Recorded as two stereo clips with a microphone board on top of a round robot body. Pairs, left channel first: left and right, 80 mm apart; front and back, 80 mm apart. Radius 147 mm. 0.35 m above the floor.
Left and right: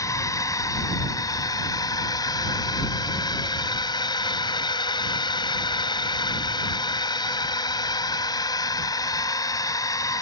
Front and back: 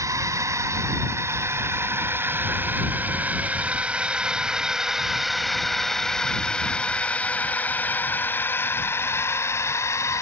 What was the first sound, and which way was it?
A drone, 135° left.